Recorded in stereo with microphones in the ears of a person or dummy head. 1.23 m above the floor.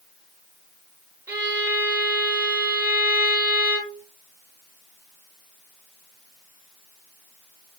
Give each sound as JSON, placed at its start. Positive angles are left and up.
{"t": 1.3, "sound": "a violin", "side_deg": -15, "distance_m": 0.8}